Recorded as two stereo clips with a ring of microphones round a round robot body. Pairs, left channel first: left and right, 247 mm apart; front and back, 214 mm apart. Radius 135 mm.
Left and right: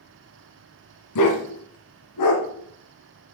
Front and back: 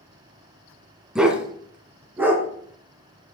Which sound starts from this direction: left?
A dog barking, at 1.1 s.